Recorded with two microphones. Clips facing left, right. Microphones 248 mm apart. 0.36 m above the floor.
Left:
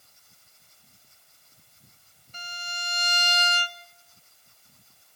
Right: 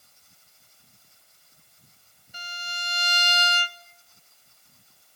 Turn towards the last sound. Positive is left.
turn(degrees=-10)  # may be behind; listen again after turning